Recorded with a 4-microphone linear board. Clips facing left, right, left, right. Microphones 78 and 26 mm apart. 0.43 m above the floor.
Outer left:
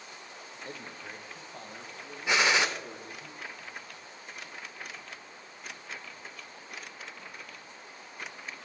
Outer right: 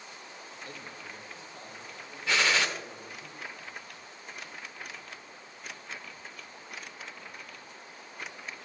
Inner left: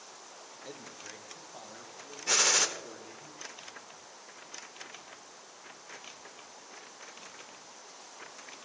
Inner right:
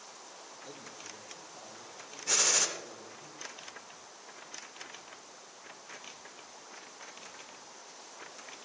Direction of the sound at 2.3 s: 20° left (ahead or behind).